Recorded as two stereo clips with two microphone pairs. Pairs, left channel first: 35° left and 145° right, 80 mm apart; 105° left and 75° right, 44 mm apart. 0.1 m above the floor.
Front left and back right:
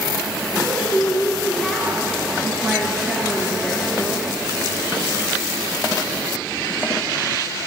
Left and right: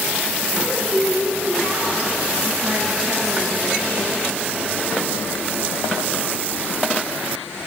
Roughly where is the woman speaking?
Ahead right.